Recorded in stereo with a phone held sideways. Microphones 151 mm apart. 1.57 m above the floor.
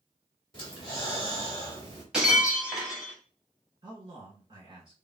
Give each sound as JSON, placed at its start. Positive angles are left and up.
{"t": 0.5, "sound": "breathing", "side_deg": 40, "distance_m": 1.8}
{"t": 2.1, "sound": "breaking glass", "side_deg": -5, "distance_m": 1.7}
{"t": 3.8, "sound": "a man speaking", "side_deg": -35, "distance_m": 1.6}